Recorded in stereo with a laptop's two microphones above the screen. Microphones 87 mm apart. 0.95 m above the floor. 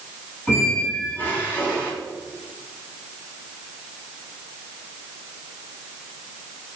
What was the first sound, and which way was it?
A squeak, 20° left (ahead or behind).